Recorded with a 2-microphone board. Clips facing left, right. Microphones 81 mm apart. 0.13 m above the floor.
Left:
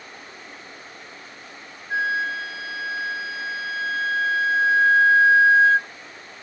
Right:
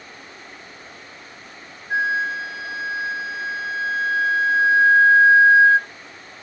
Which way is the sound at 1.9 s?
15° right (ahead or behind).